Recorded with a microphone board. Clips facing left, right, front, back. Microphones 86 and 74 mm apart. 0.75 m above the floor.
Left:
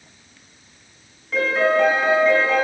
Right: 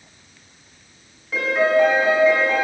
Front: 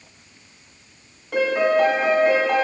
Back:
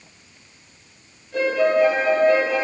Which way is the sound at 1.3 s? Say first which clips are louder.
Right 1 dB, even; 5° right.